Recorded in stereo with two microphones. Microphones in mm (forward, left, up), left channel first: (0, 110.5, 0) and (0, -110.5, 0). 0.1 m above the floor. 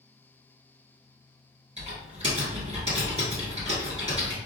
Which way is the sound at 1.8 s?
30° right (ahead or behind).